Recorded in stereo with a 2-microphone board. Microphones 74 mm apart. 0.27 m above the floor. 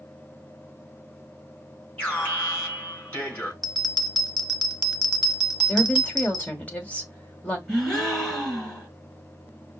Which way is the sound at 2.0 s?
20° left (ahead or behind).